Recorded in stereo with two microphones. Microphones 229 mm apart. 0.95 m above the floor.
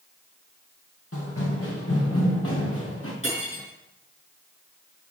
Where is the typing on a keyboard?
No typing on a keyboard in this recording.